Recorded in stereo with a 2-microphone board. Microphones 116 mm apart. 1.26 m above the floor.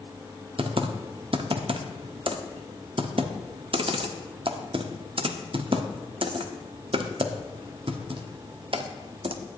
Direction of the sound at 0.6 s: 50° right (ahead or behind).